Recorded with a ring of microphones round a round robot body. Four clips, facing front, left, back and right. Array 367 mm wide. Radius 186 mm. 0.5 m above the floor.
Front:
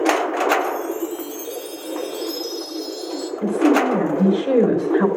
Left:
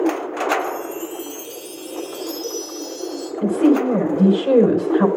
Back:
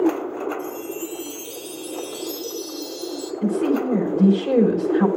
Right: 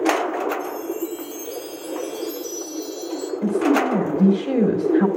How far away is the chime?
About 3 m.